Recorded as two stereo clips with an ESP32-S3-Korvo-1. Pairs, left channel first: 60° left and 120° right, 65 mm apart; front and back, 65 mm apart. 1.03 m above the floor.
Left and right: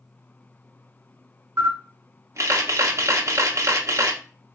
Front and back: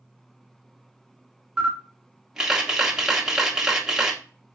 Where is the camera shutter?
100° right, 1.1 m.